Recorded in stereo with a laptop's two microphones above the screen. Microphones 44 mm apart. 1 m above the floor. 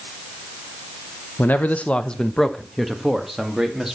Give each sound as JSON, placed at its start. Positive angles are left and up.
{"t": 1.4, "sound": "a man speaking", "side_deg": 45, "distance_m": 0.8}